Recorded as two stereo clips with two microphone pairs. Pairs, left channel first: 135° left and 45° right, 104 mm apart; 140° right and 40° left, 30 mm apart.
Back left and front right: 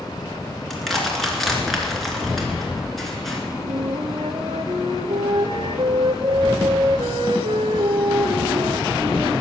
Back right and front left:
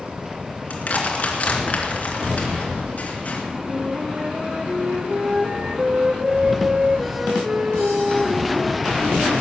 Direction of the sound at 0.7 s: 140° right.